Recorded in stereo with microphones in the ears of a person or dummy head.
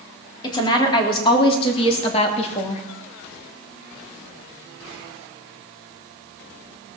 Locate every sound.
0.4 s a woman speaking: 20° left (ahead or behind), 3.5 m; by 2.8 s 35° left (ahead or behind), 2 m